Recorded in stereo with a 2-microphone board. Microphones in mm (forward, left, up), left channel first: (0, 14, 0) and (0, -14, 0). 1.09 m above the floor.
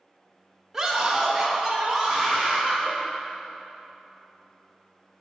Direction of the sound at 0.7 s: 15° right (ahead or behind).